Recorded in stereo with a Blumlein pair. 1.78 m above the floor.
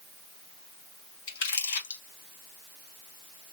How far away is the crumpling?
About 1.4 m.